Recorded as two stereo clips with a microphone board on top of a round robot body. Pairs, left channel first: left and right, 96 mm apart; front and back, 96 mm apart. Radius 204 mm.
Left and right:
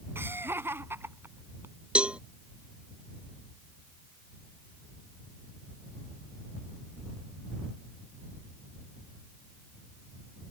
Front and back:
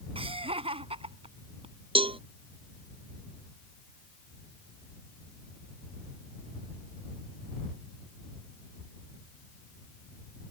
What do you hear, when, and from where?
0.1 s laughter: 160° right
1.9 s a cowbell: 170° right